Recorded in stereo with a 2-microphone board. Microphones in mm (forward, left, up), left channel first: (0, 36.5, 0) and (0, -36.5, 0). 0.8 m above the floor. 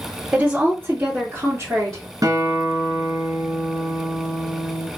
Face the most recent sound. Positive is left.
turn(degrees=-60)  # may be behind; listen again after turning